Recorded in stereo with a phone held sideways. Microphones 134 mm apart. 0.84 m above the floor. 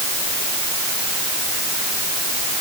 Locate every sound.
Only background noise.